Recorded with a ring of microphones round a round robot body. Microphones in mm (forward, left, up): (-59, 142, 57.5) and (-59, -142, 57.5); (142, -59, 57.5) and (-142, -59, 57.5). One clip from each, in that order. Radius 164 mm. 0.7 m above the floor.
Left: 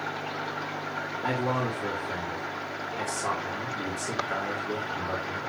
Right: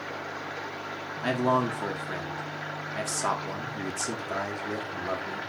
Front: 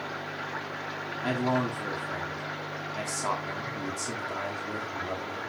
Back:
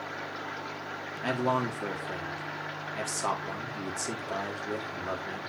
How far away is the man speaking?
About 1.9 m.